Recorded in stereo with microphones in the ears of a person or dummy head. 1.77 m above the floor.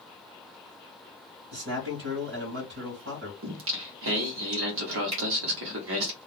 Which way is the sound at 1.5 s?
60° right (ahead or behind).